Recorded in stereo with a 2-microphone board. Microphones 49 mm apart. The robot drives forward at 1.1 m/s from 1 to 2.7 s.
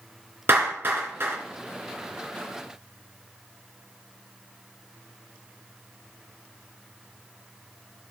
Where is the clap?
45° right (ahead or behind), 3 m; by 1.4 s 50° right (ahead or behind), 2.5 m.